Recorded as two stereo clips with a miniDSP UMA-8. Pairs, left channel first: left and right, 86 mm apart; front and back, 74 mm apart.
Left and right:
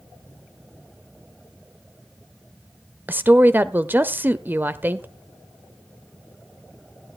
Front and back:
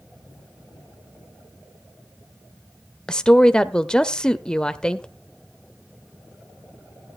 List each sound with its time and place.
3.1 s a woman speaking: 65° right, 0.9 m